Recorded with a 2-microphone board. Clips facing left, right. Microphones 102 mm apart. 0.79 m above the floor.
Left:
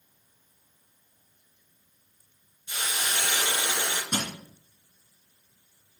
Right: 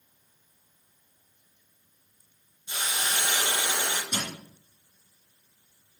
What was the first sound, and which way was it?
A hiss, 20° right (ahead or behind).